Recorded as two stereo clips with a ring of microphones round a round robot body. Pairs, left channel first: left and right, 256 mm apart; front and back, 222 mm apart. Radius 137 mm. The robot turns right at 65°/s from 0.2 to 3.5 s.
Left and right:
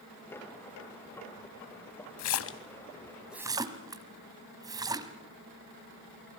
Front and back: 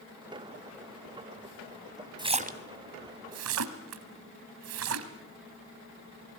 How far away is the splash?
About 1.5 m.